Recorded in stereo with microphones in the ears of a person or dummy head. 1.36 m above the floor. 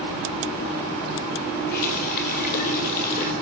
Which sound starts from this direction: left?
A running tap, at 1.7 s.